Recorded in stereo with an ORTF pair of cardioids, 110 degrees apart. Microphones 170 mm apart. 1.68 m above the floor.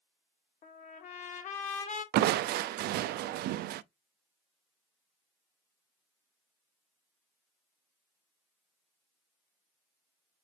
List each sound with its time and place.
0.6 s a trumpet: 45° left, 2.5 m
2.1 s crushing: 70° right, 0.6 m